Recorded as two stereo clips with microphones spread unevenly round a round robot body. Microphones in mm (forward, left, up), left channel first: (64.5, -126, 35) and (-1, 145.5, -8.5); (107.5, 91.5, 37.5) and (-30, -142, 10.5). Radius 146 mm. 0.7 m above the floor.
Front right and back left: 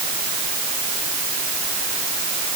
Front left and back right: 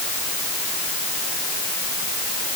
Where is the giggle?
I don't hear a giggle.